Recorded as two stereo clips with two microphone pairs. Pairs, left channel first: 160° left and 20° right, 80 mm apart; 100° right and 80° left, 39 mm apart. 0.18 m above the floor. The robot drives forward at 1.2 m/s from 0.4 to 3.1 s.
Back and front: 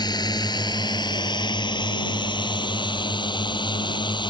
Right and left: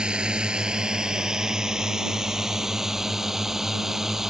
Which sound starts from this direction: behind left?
A drone, at 0.0 s.